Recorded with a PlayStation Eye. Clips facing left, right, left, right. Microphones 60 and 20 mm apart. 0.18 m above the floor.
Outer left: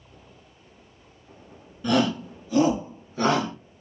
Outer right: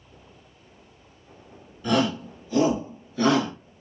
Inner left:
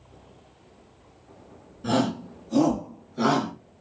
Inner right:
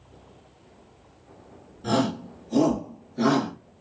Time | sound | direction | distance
1.8 | a shout | 10° left (ahead or behind) | 2.5 m